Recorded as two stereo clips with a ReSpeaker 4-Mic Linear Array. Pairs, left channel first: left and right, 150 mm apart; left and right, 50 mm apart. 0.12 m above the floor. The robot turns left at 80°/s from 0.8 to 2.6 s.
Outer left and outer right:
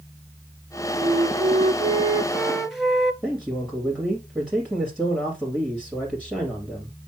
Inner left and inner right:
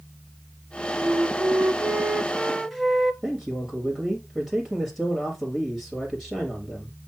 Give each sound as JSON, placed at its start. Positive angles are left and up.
{"t": 1.0, "sound": "a flute", "azimuth_deg": -50, "distance_m": 0.9}
{"t": 3.2, "sound": "a man speaking", "side_deg": -5, "distance_m": 3.0}